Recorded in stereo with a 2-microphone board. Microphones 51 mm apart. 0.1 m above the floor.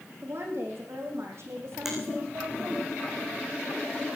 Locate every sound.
0.2 s a woman speaking: 60° right (ahead or behind), 6 m; by 2.9 s 65° right (ahead or behind), 4.5 m
1.9 s a finger snap: 5° right (ahead or behind), 6 m